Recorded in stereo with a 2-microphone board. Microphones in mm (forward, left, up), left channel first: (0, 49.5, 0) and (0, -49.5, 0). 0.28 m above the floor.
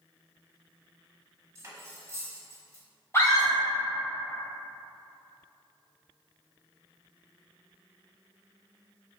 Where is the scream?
30° left (ahead or behind), 1.4 m.